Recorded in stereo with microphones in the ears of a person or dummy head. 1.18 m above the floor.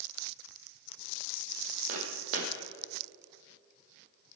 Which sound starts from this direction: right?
Footsteps, at 1.9 s.